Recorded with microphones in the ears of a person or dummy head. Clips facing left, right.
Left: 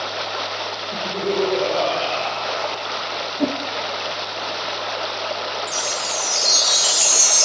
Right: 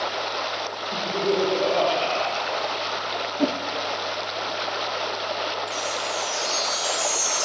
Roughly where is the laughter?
Centre.